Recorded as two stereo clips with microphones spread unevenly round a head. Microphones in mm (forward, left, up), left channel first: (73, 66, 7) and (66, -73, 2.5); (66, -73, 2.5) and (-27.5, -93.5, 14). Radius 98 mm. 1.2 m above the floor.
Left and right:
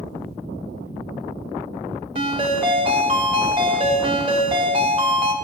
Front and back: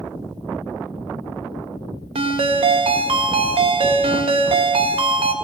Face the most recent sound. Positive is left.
turn(degrees=-155)